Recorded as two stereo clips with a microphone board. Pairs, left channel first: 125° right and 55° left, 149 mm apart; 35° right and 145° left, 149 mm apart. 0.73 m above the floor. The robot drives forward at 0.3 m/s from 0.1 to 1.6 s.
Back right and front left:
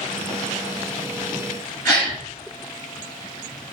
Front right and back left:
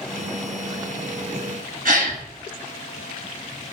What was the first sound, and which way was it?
A gasp, 165° left.